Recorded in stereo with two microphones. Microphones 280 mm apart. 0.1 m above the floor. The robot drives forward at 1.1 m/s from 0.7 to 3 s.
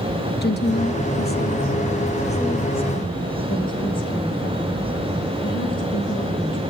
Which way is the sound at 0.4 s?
40° left (ahead or behind).